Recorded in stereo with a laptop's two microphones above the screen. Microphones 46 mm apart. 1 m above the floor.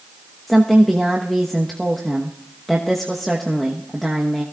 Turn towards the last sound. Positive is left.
turn(degrees=5)  # may be behind; listen again after turning